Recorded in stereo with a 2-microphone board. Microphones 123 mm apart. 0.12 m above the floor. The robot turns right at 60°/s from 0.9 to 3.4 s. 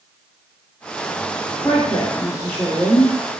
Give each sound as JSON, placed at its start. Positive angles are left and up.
{"t": 1.6, "sound": "a woman speaking", "azimuth_deg": 105, "distance_m": 1.4}